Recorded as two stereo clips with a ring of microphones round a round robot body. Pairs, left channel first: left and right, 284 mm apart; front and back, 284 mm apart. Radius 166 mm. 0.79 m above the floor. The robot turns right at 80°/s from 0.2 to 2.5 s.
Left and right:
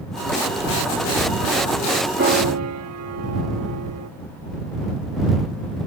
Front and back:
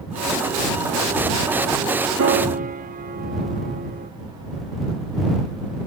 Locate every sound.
2.2 s a piano: 145° right; by 4.1 s 120° right